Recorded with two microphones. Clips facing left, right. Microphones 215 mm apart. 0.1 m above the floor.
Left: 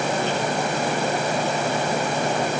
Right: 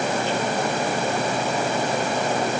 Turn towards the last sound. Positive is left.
No sound to turn to.